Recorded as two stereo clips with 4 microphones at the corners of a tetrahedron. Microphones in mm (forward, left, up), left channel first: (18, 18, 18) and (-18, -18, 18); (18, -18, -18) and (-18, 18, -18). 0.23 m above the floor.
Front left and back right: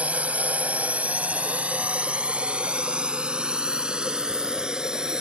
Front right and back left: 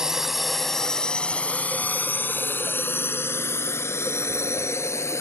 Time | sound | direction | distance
0.0 | a drone | 155° right | ?